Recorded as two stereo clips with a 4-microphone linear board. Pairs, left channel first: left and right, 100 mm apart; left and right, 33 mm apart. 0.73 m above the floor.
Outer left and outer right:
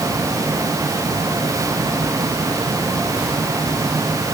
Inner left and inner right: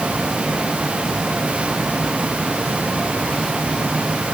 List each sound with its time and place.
Only background noise.